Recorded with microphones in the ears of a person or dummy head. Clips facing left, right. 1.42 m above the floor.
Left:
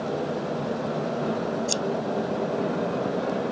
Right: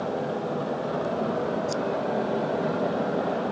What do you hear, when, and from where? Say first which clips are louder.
1.7 s scissors: right 1 dB; 50° left (ahead or behind)